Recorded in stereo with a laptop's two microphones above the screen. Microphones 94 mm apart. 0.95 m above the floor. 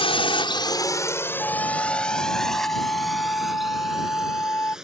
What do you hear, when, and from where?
0.0 s a drone: 75° left (ahead or behind); by 4.8 s 5° right (ahead or behind)
1.4 s a flute: 25° left (ahead or behind)